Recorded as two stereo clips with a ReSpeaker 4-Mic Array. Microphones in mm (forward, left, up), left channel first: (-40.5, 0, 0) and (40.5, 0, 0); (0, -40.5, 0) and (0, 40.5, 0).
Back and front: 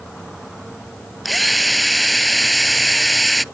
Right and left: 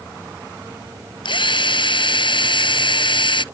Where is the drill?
90° right.